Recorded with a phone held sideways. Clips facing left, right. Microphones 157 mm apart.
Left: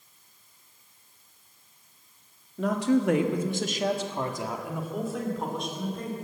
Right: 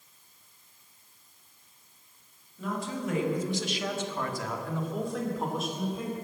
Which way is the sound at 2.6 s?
85° left.